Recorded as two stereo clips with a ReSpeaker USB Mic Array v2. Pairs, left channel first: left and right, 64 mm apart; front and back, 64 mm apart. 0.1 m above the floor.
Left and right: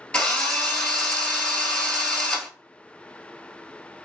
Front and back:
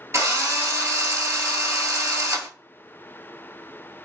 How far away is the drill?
About 0.8 m.